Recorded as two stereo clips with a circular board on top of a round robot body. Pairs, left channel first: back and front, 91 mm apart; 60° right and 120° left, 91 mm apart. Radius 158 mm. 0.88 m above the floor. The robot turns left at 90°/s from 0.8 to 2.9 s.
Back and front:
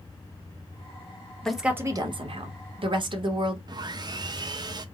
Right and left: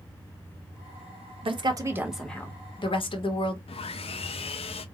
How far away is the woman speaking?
About 1.2 m.